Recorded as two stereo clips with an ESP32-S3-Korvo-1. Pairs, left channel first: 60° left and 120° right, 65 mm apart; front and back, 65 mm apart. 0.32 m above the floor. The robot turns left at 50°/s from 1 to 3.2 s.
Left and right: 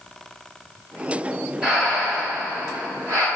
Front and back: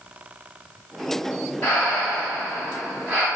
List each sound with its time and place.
1.6 s breathing: 40° right, 1.4 m; by 3.3 s 120° right, 1.4 m